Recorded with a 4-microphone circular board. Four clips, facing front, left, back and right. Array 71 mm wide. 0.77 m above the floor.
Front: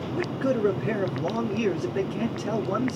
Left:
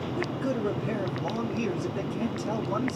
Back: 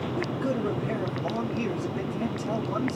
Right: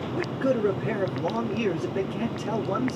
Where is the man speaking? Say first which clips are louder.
Right 5 dB, front 4 dB; 50° right, 2.5 m.